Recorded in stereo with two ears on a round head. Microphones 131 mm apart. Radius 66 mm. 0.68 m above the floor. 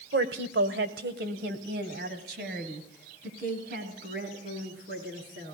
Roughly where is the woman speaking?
Right.